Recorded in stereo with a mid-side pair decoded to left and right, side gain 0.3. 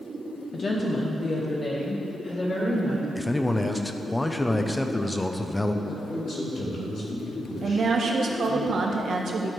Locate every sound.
0.5 s a woman speaking: 55° left, 0.8 m; by 3.0 s 50° left, 2.5 m
3.1 s a man speaking: 25° left, 0.8 m
5.8 s a man speaking: 60° left, 3 m
7.6 s a woman speaking: 60° right, 1.2 m